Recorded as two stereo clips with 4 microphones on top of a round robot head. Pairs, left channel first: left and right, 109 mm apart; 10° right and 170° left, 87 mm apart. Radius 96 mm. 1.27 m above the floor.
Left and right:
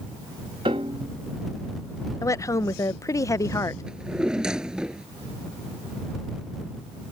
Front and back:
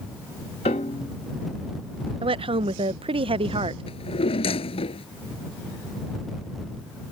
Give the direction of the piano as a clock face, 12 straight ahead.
1 o'clock.